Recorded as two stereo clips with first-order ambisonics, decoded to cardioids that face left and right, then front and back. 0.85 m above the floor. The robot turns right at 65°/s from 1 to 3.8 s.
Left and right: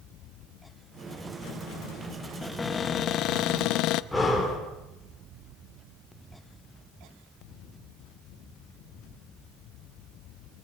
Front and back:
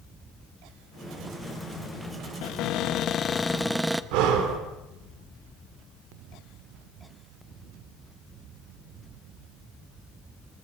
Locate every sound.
2.4 s a cupboard door: 5° left, 0.5 m; by 4.0 s 95° left, 0.5 m
4.1 s breathing: 175° left, 3 m